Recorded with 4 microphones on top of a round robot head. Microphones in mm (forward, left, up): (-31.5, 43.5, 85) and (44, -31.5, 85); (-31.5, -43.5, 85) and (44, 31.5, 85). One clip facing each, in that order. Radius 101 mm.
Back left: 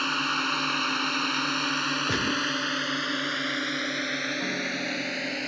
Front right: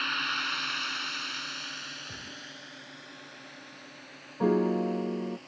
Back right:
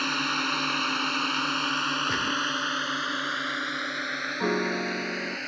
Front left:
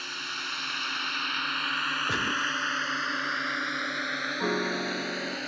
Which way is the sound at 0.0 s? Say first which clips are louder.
Back left 6 dB, back right 10 dB; 170° right.